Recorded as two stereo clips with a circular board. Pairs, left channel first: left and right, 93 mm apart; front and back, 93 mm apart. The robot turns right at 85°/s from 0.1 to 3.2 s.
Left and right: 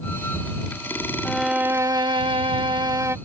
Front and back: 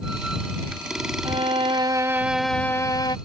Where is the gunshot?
No gunshot in this recording.